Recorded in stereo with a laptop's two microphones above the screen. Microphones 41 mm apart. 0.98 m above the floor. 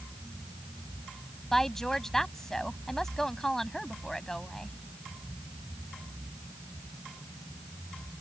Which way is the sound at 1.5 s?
10° left (ahead or behind).